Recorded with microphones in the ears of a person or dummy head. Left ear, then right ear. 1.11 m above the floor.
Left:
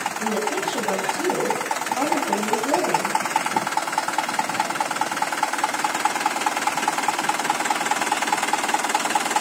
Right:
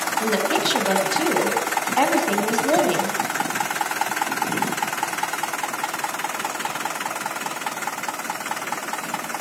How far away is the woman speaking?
About 7.5 m.